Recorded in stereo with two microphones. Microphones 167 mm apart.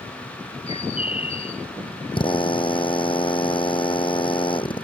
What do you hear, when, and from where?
0.7 s a bird: 40° left (ahead or behind)
2.1 s a drill: 30° left (ahead or behind)